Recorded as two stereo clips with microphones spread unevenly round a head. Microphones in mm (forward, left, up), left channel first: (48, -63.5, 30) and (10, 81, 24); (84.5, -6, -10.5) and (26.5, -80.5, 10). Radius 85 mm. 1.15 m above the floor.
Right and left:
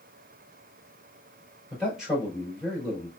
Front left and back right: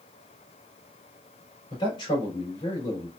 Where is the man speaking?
20° left, 3 m.